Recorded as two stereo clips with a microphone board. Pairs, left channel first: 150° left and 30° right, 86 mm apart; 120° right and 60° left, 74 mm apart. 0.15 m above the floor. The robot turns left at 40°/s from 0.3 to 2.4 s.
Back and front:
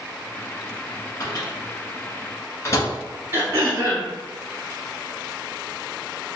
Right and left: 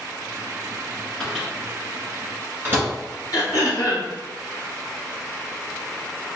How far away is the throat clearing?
About 1.5 m.